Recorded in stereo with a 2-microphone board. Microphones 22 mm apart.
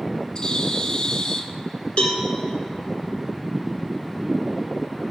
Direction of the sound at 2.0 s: 60° left (ahead or behind).